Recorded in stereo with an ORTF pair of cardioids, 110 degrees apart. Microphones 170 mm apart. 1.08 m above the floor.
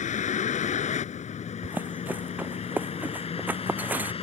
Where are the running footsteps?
10° right.